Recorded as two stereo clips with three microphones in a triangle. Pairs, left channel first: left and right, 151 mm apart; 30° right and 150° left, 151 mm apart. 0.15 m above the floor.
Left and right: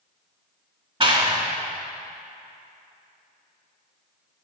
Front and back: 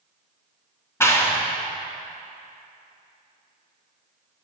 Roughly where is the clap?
Right.